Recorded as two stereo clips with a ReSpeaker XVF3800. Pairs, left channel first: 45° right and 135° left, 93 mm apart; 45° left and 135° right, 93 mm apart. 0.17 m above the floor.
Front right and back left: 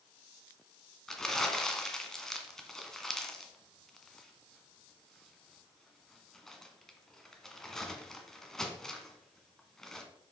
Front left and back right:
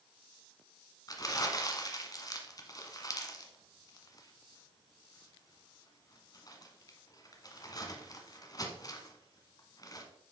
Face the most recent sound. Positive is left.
turn(degrees=40)